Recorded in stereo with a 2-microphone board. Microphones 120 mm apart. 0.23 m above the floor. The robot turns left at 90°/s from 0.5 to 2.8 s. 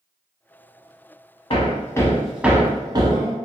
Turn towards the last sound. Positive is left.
turn(degrees=-35)  # may be behind; listen again after turning